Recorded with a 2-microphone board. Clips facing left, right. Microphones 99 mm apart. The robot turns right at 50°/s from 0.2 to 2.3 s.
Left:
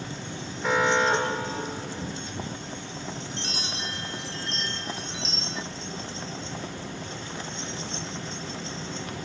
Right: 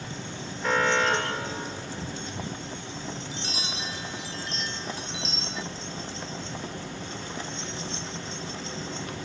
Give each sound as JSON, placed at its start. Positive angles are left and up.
{"t": 0.6, "sound": "an alarm", "azimuth_deg": 0, "distance_m": 3.5}
{"t": 3.3, "sound": "a chime", "side_deg": -5, "distance_m": 0.6}